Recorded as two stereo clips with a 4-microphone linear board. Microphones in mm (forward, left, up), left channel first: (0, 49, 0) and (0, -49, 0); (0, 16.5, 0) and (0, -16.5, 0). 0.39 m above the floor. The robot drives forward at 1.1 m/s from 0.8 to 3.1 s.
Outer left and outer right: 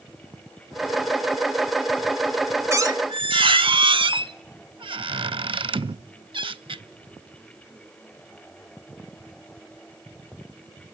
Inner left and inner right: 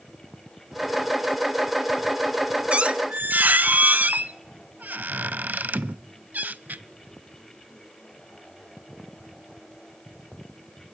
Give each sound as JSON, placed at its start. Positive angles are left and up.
{"t": 2.7, "sound": "a squeak", "side_deg": -30, "distance_m": 0.8}